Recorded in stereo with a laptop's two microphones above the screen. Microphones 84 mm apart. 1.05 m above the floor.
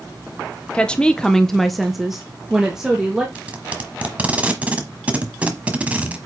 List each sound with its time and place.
0.7 s a woman speaking: 15° left (ahead or behind), 0.6 m; by 3.2 s 5° right (ahead or behind), 1.5 m
3.4 s tape being pulled: 20° right (ahead or behind), 1.1 m